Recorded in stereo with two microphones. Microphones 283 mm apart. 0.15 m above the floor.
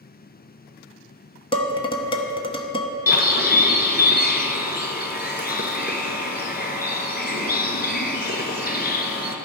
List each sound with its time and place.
1.5 s dishes clattering: 20° left (ahead or behind), 0.8 m
3.1 s a bird: 35° left (ahead or behind), 0.9 m